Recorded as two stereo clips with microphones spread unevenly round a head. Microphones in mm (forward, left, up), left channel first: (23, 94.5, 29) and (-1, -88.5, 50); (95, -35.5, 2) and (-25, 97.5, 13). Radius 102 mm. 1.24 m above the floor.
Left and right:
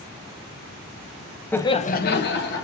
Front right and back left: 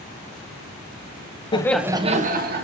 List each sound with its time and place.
1.5 s laughter: 10° left, 0.8 m; by 2.6 s 105° left, 1.5 m